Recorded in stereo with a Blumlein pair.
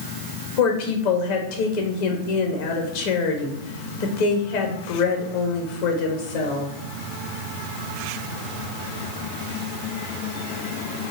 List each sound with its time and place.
0.6 s a woman speaking: 50° left, 1.2 m